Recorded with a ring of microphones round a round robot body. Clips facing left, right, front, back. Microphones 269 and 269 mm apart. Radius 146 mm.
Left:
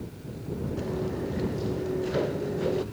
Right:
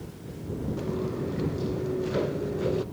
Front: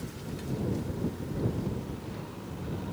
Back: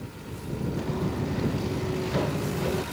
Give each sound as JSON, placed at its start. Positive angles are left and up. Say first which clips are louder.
{"t": 0.8, "sound": "footsteps", "louder": "even, back 5 dB", "azimuth_deg": -170}